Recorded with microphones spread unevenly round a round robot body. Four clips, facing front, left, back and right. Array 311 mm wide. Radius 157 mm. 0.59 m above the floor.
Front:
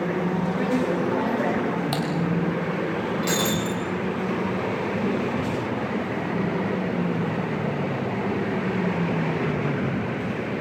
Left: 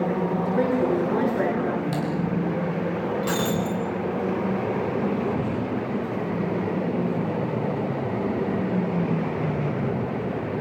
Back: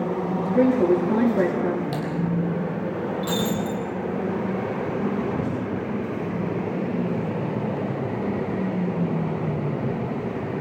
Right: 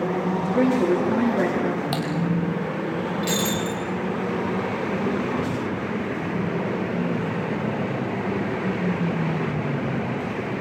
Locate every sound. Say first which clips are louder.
0.5 s a woman speaking: right 3 dB, back 9 dB; 145° right, 8.5 m
1.9 s typing on a keyboard: even, front 2 dB; 50° right, 6 m
3.2 s breaking glass: even, back 1 dB; 30° left, 4.5 m